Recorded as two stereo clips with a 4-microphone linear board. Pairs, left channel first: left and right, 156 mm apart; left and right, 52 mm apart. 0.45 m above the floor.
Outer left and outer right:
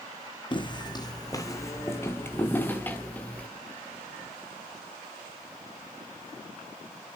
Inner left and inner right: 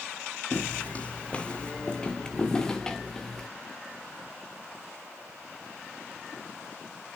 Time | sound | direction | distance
0.5 | footsteps | 30° left (ahead or behind) | 1.7 m